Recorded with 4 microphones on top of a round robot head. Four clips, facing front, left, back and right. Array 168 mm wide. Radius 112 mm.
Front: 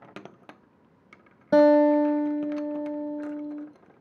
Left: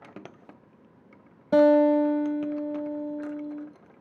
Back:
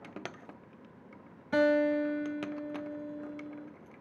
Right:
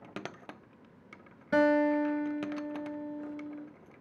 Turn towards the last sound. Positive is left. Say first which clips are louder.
# left 7 dB, front 9 dB
turn(degrees=35)